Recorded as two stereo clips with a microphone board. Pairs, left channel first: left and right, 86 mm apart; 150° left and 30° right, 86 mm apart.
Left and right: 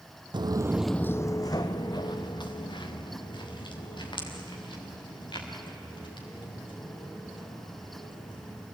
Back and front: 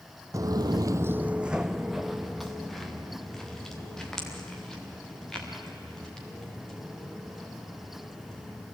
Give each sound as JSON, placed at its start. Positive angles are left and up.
{"t": 0.3, "sound": "footsteps", "azimuth_deg": -75, "distance_m": 0.7}